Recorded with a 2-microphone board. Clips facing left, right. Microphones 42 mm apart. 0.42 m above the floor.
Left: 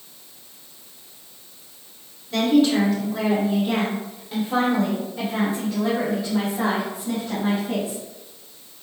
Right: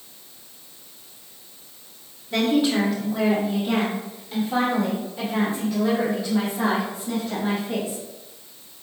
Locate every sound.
2.3 s a woman speaking: 15° right (ahead or behind), 1.2 m; by 8.0 s 25° left (ahead or behind), 4 m